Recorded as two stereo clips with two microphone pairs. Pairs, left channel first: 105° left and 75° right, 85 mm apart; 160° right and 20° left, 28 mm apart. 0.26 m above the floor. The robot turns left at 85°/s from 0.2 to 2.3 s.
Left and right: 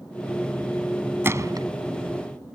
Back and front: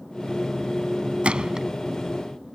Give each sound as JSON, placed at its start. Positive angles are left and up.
{"t": 1.2, "sound": "a gunshot", "azimuth_deg": -15}